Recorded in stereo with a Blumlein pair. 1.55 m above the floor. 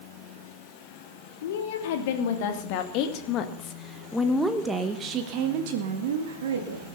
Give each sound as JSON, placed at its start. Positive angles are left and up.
{"t": 1.4, "sound": "a woman speaking", "azimuth_deg": 60, "distance_m": 3.5}